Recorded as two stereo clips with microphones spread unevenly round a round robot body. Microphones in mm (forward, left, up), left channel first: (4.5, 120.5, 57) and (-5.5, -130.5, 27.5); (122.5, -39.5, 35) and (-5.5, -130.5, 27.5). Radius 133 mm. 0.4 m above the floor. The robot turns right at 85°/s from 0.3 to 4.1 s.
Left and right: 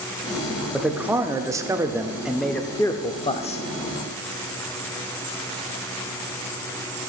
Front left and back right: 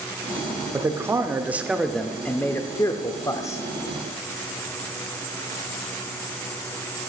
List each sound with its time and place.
0.7 s a man speaking: 165° right, 0.7 m; by 3.6 s 85° left, 0.7 m